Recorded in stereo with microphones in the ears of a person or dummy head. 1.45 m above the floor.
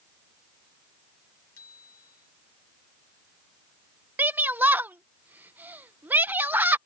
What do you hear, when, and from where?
1.6 s a bicycle bell: 85° left
4.2 s a shout: 10° right (ahead or behind)